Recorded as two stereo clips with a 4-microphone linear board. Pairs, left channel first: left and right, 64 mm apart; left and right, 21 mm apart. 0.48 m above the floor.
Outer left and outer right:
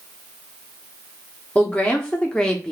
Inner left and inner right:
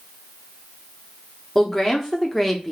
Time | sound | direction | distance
1.6 | a woman speaking | 20° left (ahead or behind) | 1.0 m